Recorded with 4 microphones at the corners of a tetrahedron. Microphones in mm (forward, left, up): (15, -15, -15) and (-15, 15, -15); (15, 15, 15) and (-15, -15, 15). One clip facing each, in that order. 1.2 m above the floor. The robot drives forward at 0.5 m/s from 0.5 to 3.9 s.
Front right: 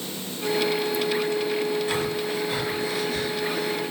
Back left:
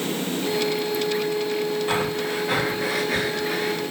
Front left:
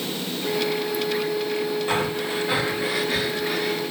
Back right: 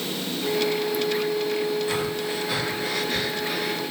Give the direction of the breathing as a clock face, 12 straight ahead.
9 o'clock.